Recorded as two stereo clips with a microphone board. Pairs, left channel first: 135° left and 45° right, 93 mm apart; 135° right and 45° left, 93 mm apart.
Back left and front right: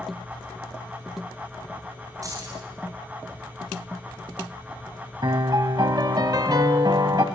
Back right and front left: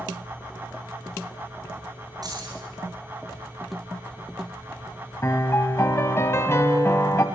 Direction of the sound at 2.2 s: 5° left.